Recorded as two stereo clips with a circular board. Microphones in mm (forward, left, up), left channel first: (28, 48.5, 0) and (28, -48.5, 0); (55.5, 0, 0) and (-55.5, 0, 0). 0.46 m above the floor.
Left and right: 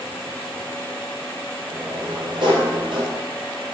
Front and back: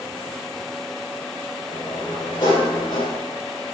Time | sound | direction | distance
1.7 | a sliding door | 50° right | 4 m